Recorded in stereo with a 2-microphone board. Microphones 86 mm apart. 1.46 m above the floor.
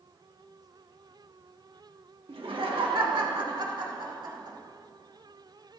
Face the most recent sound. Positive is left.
turn(degrees=-55)  # may be behind; listen again after turning